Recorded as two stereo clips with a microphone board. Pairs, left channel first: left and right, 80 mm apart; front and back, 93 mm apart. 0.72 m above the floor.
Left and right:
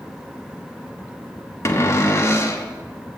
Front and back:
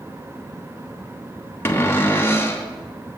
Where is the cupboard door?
55° left, 1.1 m.